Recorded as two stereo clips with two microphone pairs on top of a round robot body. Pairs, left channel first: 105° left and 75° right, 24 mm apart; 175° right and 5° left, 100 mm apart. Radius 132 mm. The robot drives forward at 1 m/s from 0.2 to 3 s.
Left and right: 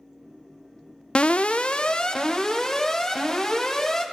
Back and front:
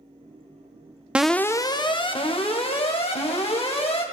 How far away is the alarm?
About 0.6 m.